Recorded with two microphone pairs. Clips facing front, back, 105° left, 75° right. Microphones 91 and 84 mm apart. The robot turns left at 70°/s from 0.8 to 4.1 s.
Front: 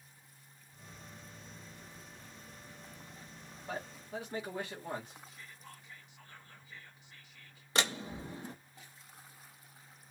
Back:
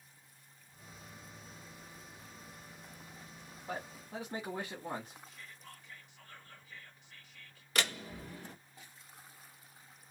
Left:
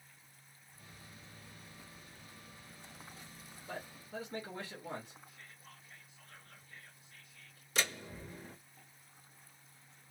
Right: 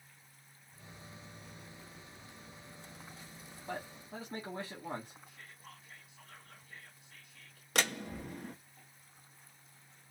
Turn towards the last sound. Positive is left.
turn(degrees=-60)